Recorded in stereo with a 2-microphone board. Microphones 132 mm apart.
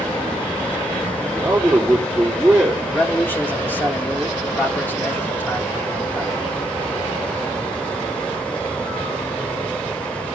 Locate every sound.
1.2 s a man speaking: 5° right (ahead or behind), 3.5 m
2.9 s a man speaking: 15° left (ahead or behind), 3 m